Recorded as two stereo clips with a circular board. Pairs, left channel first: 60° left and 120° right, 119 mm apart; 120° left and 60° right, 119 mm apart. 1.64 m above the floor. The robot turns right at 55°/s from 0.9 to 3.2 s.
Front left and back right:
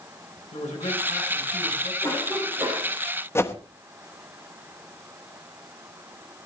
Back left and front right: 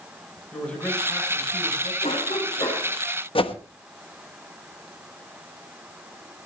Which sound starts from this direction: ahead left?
A man speaking, at 0.5 s.